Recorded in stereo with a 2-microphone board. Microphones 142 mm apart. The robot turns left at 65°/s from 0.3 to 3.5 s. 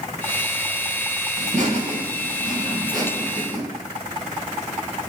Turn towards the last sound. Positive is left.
turn(degrees=140)